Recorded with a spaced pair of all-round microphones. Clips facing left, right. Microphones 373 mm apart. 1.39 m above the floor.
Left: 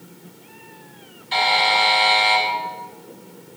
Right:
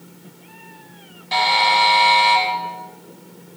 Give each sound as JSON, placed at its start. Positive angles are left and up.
{"t": 1.3, "sound": "a buzzer", "side_deg": -80, "distance_m": 3.5}